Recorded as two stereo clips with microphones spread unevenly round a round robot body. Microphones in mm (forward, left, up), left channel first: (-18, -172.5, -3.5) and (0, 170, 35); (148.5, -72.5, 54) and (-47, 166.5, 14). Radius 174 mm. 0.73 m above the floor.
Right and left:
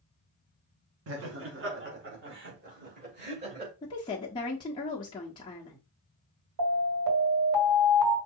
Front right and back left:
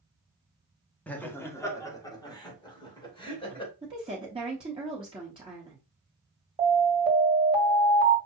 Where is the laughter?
40° left, 1.3 m; by 3.7 s 25° left, 3 m.